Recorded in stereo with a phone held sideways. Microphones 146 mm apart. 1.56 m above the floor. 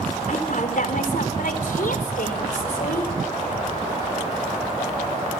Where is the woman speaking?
65° left (ahead or behind), 4 m; by 3.1 s 85° left, 5 m.